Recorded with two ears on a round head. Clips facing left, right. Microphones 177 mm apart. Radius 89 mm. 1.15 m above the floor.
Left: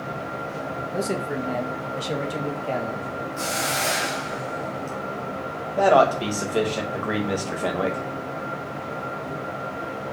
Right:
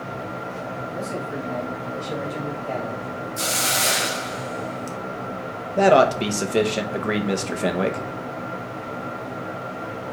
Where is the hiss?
45° right (ahead or behind), 1.1 m.